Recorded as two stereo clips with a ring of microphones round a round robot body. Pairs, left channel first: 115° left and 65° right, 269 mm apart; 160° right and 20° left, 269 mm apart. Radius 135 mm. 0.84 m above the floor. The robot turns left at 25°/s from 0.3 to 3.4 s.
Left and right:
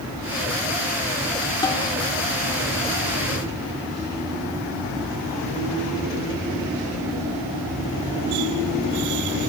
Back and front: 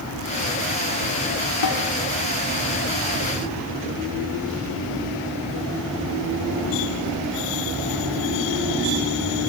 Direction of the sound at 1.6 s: 170° right.